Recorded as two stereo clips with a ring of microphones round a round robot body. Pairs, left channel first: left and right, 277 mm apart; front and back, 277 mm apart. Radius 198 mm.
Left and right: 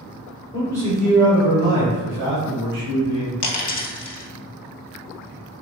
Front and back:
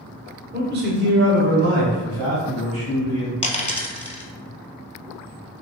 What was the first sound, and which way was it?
A man speaking, 150° left.